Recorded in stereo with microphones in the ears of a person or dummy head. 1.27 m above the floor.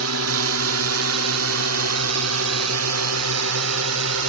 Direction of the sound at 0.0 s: 70° right (ahead or behind).